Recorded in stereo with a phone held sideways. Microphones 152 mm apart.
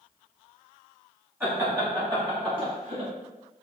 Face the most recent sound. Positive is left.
turn(degrees=-45)  # may be behind; listen again after turning